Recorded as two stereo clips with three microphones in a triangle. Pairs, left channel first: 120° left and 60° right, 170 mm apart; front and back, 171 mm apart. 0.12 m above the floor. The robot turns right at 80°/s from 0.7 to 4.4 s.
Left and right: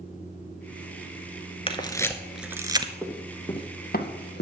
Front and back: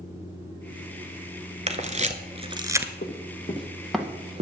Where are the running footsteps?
10° left, 3 m; by 4.4 s 130° left, 2 m.